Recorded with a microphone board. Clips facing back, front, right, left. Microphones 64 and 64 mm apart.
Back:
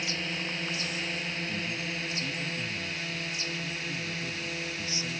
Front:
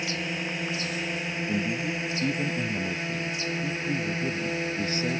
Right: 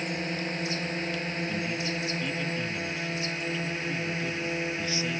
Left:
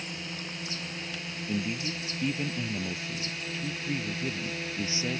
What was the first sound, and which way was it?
A drone, 70° right.